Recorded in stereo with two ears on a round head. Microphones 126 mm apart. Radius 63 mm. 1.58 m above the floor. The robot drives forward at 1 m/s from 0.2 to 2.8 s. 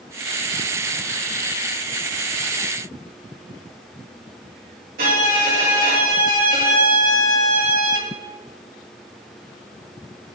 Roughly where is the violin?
Right.